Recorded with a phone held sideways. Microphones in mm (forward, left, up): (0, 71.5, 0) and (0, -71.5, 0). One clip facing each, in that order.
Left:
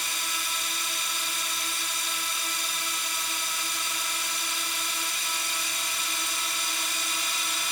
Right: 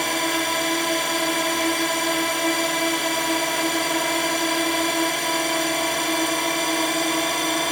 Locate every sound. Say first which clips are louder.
0.0 s a drone: right 15 dB; 70° right (ahead or behind); by 7.7 s 65° right (ahead or behind)